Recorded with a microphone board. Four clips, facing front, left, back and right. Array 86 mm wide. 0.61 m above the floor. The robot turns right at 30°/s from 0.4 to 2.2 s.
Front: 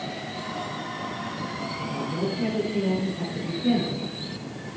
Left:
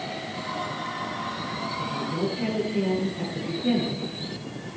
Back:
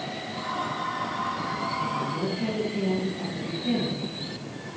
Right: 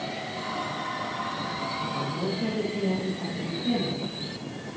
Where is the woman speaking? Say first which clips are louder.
Left 5 dB, back 1 dB; 30° left, 9 m; by 4.8 s 40° left, 9 m.